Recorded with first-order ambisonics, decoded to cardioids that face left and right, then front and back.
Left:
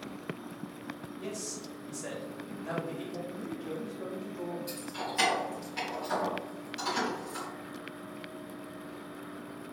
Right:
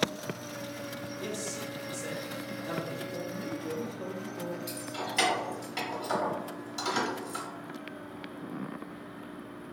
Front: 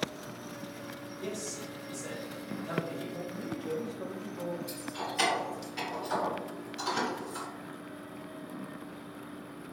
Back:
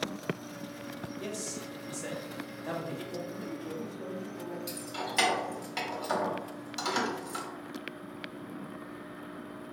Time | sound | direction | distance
1.2 | a man speaking | 175° left | 1.3 m
3.3 | a man speaking | 20° right | 0.6 m
4.7 | keys jangling | 160° right | 1.4 m